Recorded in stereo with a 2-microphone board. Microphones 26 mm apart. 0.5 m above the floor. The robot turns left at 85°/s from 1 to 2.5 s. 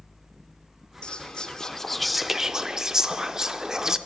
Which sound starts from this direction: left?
Whispering, at 1.0 s.